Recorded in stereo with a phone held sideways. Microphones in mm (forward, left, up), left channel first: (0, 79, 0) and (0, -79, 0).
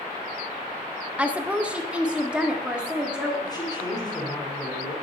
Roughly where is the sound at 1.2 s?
Centre.